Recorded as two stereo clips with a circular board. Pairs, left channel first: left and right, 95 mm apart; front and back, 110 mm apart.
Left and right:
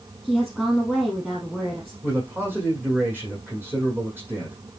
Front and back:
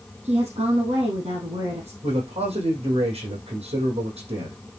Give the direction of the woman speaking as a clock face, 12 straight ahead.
6 o'clock.